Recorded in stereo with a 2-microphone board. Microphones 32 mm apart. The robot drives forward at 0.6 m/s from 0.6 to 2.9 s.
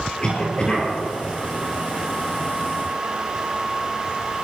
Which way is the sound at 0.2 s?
25° left (ahead or behind).